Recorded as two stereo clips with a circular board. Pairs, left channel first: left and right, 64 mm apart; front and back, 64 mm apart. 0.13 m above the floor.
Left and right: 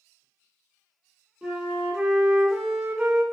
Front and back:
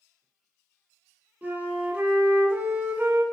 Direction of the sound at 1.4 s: 150° right.